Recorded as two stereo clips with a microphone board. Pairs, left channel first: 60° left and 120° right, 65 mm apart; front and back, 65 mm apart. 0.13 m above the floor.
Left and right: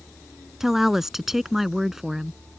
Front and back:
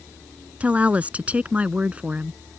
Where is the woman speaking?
165° left.